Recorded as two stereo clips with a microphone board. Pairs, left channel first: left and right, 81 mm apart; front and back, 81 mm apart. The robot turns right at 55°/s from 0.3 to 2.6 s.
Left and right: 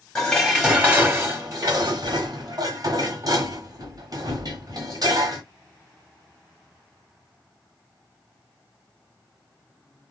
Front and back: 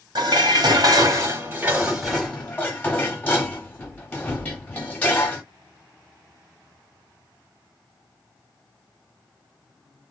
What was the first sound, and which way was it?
Dishes clattering, 170° left.